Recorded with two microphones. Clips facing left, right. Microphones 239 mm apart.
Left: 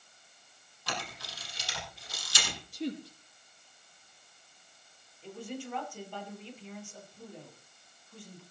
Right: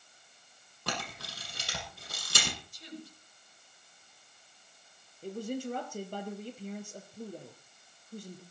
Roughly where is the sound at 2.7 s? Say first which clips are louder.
Left 10 dB; left.